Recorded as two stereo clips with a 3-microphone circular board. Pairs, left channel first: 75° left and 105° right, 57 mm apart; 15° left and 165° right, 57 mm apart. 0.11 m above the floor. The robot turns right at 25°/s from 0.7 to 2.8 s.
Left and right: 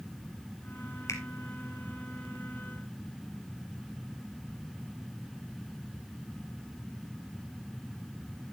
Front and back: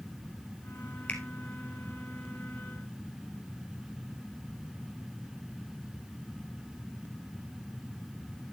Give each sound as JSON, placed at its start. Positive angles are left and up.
{"t": 1.1, "sound": "a finger snap", "azimuth_deg": 80, "distance_m": 2.5}